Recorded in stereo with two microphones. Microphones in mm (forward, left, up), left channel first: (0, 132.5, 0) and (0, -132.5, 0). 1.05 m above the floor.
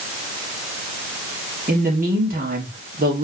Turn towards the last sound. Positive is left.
turn(degrees=-35)  # may be behind; listen again after turning